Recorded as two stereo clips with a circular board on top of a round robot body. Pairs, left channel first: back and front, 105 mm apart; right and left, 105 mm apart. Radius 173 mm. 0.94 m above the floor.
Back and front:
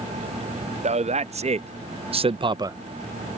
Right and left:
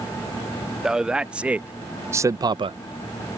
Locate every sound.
0.8 s a man speaking: 5° left; by 2.8 s 65° left